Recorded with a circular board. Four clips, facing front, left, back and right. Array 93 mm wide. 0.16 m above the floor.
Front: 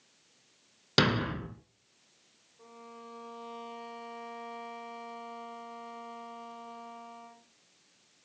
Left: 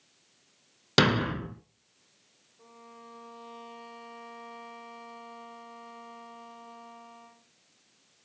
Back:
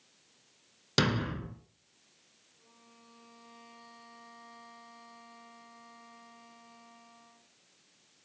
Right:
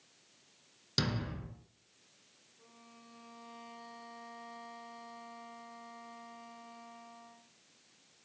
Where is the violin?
30° left, 3 m.